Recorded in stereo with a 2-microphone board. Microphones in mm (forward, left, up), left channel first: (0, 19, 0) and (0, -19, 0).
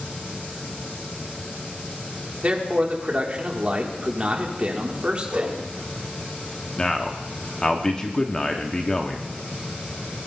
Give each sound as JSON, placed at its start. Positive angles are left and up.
{"t": 2.4, "sound": "a man speaking", "side_deg": -30, "distance_m": 1.5}
{"t": 5.3, "sound": "a whoosh", "side_deg": -35, "distance_m": 6.0}
{"t": 6.8, "sound": "a man speaking", "side_deg": 20, "distance_m": 0.8}